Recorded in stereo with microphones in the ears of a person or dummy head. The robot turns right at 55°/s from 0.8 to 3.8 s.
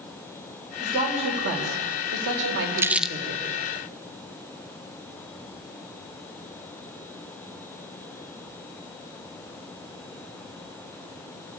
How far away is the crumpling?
About 0.6 m.